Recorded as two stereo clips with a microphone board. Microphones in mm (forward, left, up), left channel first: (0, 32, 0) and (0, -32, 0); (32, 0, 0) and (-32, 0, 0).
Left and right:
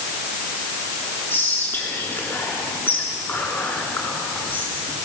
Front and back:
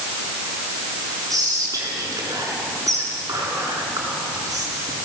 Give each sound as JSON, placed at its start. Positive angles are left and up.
{"t": 1.3, "sound": "whispering", "azimuth_deg": 145, "distance_m": 7.5}